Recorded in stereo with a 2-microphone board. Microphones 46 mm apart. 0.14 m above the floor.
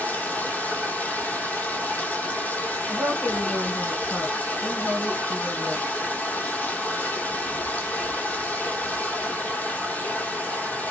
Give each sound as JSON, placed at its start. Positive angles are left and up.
{"t": 0.0, "sound": "running water", "side_deg": 35, "distance_m": 0.8}
{"t": 2.9, "sound": "a woman speaking", "side_deg": 50, "distance_m": 2.5}